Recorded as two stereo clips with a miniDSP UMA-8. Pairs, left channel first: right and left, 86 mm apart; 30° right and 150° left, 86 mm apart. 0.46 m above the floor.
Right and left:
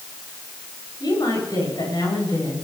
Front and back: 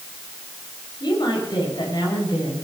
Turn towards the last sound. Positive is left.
turn(degrees=-55)